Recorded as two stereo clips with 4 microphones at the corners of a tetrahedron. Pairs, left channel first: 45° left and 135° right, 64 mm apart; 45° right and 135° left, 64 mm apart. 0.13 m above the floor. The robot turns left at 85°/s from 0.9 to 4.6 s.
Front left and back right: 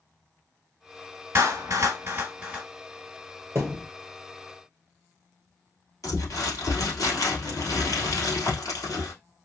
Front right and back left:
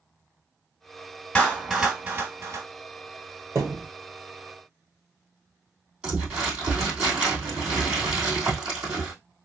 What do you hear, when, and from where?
1.4 s a clap: 105° right, 1.6 m; by 2.6 s 145° left, 1.6 m
3.5 s a thud: straight behind, 1.5 m; by 3.9 s 155° left, 1.5 m
6.0 s crumpling: 65° left, 2.5 m